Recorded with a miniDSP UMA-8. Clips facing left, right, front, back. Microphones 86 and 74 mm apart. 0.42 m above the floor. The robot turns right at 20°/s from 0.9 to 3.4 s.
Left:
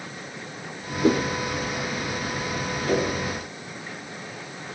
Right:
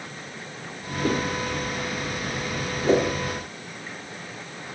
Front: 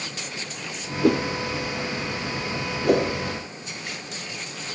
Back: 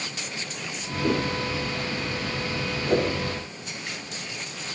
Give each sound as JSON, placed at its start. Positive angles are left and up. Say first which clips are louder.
{"t": 1.0, "sound": "a whoosh", "louder": "left 5 dB, front 5 dB", "azimuth_deg": 20, "distance_m": 5.5}
{"t": 2.8, "sound": "a whoosh", "louder": "right 4 dB, front 3 dB", "azimuth_deg": -25, "distance_m": 5.5}